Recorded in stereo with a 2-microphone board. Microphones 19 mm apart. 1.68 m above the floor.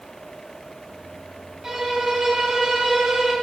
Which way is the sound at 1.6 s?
30° right (ahead or behind).